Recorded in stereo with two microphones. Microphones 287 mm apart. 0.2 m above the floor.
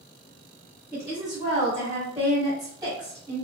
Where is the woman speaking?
15° right (ahead or behind), 1.9 m; by 3.4 s 10° right (ahead or behind), 1.6 m.